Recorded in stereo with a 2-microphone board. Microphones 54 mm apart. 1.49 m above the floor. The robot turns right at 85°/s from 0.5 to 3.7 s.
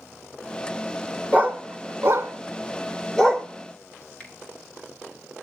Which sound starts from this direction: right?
A dog barking, at 1.3 s.